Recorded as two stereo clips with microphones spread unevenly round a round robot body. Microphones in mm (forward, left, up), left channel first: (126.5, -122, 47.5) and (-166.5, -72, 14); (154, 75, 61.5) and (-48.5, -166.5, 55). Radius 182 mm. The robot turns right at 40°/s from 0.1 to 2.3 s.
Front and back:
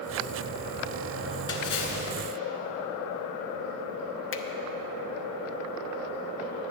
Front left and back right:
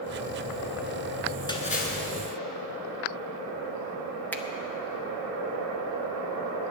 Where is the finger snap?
35° right, 0.9 m.